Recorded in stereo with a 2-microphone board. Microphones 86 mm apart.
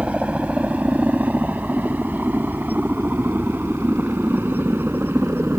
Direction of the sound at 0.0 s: 15° right (ahead or behind).